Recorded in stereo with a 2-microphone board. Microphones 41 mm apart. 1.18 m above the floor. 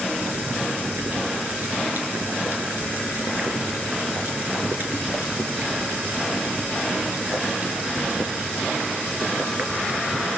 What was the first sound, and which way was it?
Boiling, 55° right (ahead or behind).